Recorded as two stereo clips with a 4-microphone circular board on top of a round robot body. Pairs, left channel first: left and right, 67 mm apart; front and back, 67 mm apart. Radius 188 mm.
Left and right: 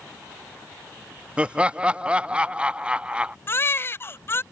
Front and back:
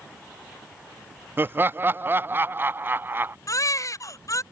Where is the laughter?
150° right.